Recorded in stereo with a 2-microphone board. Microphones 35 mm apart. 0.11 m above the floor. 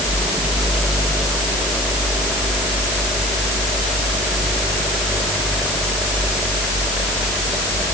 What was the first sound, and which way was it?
Only background noise.